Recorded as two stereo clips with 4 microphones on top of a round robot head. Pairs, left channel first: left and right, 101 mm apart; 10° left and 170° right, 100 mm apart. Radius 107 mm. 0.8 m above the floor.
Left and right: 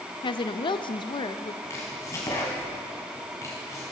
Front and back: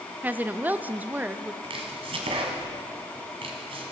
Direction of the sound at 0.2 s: 115° left.